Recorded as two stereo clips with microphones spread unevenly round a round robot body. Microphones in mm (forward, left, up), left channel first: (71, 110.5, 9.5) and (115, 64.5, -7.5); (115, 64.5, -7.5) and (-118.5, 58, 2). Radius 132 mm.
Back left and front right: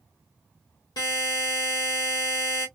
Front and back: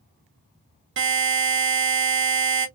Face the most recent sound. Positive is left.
turn(degrees=150)